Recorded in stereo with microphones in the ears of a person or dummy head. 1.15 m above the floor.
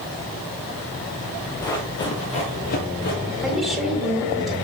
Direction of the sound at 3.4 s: 5° right (ahead or behind).